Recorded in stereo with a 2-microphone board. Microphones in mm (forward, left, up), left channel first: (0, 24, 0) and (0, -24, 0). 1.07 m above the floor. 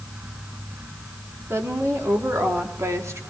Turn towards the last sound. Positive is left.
turn(degrees=-75)  # may be behind; listen again after turning